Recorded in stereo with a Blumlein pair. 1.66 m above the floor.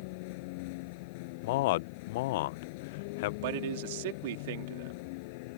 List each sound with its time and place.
0.0 s a vehicle: 45° left
1.4 s a man speaking: 50° left
3.4 s a man speaking: 50° right